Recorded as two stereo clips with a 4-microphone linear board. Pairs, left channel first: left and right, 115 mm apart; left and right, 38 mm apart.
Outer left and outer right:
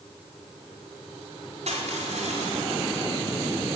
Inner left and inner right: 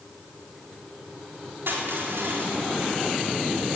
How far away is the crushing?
About 4.5 m.